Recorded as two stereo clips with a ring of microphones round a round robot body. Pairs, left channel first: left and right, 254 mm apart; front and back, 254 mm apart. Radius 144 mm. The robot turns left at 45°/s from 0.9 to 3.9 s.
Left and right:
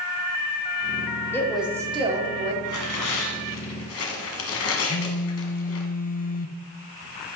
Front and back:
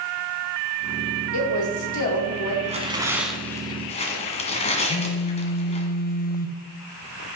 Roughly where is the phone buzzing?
Ahead left.